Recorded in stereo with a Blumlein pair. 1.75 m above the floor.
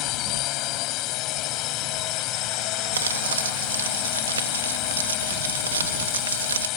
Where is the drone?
40° left.